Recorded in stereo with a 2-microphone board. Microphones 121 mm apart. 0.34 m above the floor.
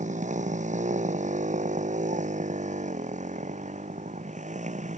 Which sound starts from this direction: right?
A motorcycle, at 0.0 s.